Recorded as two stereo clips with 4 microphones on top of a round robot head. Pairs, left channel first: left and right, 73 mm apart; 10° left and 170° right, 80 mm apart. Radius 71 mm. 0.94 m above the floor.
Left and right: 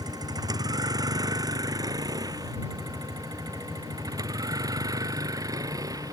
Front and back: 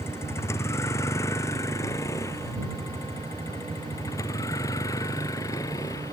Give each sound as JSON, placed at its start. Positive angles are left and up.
{"t": 0.0, "sound": "a vehicle", "azimuth_deg": -55}